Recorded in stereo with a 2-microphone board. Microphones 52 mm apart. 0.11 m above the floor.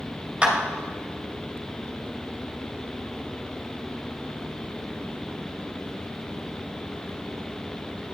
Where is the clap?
20° right (ahead or behind), 1.6 m.